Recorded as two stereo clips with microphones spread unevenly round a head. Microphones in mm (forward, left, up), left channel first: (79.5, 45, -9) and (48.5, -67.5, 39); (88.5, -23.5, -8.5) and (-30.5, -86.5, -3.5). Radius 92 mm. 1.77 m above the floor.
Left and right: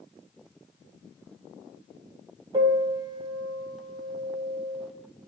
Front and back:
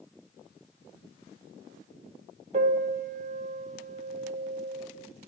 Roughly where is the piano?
Behind right.